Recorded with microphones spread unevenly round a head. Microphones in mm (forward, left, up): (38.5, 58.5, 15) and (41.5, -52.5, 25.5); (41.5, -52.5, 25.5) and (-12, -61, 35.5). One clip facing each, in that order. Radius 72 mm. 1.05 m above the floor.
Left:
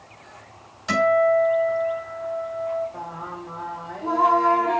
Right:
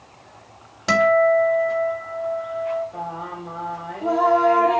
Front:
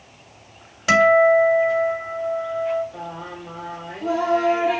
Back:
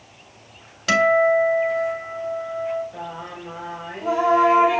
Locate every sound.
0.9 s a guitar: 65° right, 3 m
2.9 s singing: 105° right, 3.5 m